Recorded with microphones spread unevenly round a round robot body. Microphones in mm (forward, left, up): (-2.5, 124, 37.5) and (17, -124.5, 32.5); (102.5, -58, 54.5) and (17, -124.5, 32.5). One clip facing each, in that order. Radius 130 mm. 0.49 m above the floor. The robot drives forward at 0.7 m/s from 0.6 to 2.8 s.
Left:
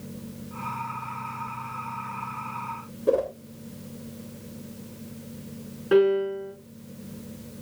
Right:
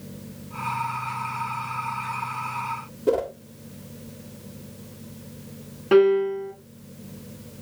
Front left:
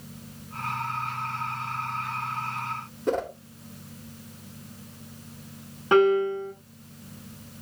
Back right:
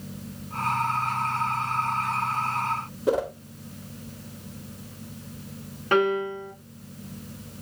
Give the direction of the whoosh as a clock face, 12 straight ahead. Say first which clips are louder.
Right 1 dB, back right 3 dB; 2 o'clock.